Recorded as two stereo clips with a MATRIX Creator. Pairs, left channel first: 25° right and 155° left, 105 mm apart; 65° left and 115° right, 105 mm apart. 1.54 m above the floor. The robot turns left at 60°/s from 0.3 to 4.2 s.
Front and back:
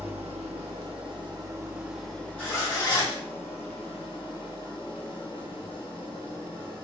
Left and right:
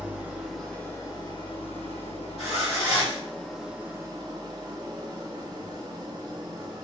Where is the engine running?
170° left, 0.9 m; by 6.8 s 60° right, 0.9 m.